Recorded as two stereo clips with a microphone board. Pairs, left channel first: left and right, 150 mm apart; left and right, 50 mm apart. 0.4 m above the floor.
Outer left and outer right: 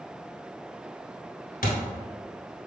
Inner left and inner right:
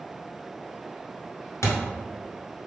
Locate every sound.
1.6 s a thud: 85° left, 1.1 m